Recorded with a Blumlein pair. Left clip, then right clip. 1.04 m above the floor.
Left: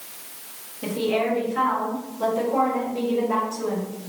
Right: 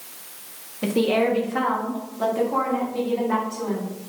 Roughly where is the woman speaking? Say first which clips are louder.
Right 3 dB; ahead right.